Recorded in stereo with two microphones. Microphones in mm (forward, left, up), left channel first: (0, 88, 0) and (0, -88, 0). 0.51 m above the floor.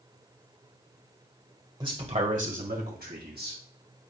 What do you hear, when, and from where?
1.8 s a man speaking: 25° right (ahead or behind), 1.8 m; by 3.6 s 70° right (ahead or behind), 3.5 m